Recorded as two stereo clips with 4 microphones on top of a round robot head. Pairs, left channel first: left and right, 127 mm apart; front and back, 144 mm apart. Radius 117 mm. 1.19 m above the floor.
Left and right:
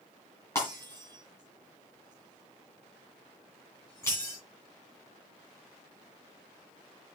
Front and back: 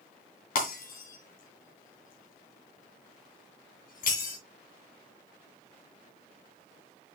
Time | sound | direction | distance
0.6 | breaking glass | 15° left | 3 m